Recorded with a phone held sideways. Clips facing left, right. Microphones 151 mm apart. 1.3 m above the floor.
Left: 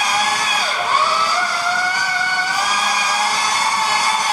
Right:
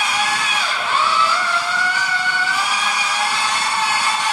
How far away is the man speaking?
I don't hear a man speaking.